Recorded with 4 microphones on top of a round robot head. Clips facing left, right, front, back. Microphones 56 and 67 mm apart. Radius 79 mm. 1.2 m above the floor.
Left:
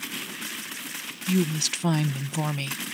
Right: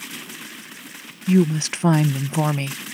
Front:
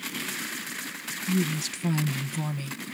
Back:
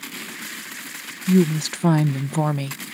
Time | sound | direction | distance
1.3 | a woman speaking | 145° right | ?